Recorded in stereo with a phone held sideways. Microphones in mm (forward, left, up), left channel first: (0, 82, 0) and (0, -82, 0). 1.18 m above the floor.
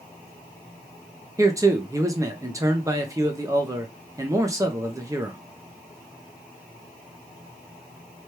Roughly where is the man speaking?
Centre.